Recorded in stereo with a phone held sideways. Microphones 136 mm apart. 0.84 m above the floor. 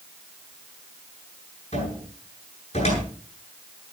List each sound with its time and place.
1.7 s a cupboard door: 60° left (ahead or behind), 9 m